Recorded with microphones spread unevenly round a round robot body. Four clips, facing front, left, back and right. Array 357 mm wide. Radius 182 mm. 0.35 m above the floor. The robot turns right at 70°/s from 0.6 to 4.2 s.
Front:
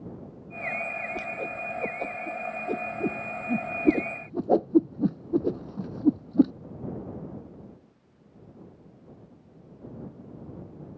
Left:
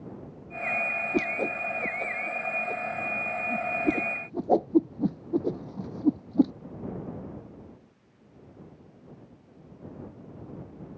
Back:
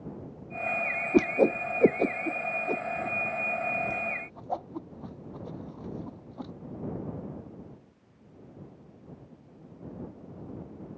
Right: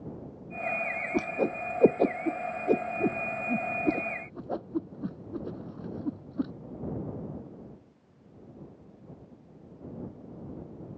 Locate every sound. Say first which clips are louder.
1.1 s a whoosh: right 1 dB, back 11 dB; 175° left; by 6.5 s 25° left